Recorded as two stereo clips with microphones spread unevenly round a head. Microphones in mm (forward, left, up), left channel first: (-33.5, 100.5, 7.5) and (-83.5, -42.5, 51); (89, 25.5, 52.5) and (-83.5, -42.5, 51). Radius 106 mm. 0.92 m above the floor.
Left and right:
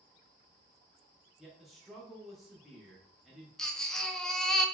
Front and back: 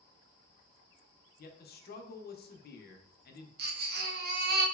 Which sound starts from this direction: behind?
A baby crying, at 3.6 s.